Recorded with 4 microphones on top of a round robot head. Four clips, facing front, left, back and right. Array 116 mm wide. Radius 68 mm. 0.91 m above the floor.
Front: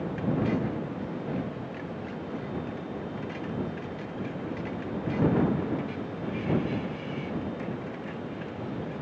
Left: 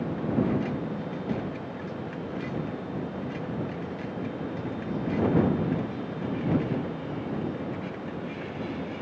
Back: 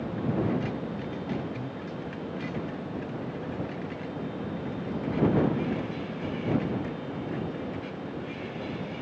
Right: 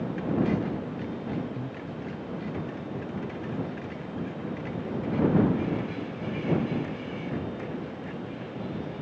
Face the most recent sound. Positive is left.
turn(degrees=-115)